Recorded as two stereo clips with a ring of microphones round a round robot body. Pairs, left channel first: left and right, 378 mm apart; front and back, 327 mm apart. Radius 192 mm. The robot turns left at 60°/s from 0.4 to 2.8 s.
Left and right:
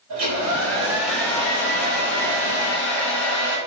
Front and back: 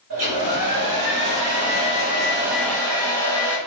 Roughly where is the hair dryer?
Behind right.